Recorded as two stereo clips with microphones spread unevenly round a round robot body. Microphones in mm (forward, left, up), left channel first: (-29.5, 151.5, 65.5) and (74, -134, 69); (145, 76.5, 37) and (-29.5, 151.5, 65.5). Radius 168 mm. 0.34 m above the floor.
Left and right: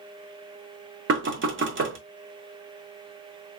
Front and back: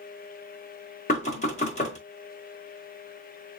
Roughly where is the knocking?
Ahead right.